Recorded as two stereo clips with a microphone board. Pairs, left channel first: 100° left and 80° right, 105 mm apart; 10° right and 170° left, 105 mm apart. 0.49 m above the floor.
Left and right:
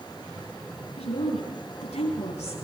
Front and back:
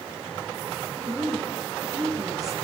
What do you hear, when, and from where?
1.0 s a woman speaking: 110° left, 8 m